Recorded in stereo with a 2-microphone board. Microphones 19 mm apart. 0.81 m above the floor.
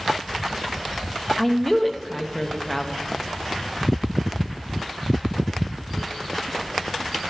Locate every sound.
1.4 s a woman speaking: 15° left (ahead or behind), 0.9 m